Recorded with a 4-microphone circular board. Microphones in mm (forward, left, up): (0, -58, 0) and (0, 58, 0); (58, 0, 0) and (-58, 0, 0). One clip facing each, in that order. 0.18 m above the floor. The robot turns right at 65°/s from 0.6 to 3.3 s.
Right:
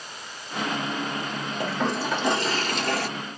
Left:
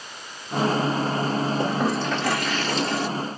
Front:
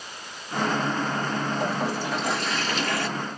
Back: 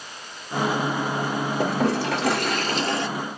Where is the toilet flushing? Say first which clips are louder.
Left 3 dB, back 4 dB; 155° left, 0.6 m; by 3.1 s 105° right, 0.6 m.